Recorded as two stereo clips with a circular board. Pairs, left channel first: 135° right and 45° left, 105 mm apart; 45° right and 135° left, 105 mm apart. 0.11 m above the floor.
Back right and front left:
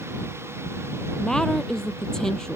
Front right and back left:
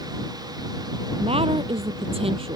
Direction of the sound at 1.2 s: 140° left.